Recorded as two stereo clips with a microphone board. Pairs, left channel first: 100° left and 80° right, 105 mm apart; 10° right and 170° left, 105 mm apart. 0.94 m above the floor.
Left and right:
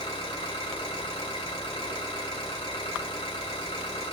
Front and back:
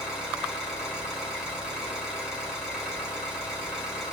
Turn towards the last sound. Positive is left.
turn(degrees=85)